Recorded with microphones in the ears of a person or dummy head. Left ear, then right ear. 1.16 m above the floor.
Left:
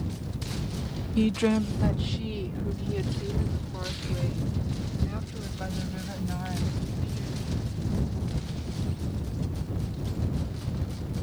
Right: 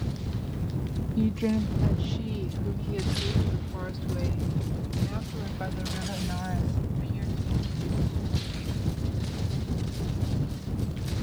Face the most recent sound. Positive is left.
turn(degrees=-15)  # may be behind; listen again after turning